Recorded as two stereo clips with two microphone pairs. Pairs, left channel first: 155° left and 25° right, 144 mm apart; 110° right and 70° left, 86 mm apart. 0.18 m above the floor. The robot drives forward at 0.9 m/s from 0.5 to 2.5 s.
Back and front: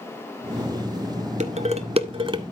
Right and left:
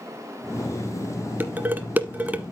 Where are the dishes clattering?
5° left, 1.7 m; by 2.5 s 10° left, 0.9 m.